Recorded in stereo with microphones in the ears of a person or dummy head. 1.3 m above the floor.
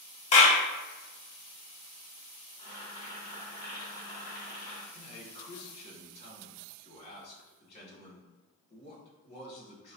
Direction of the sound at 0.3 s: 45° left (ahead or behind).